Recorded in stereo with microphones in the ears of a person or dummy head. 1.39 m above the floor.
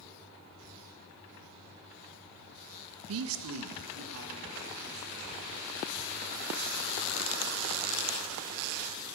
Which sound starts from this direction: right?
A man speaking, at 3.1 s.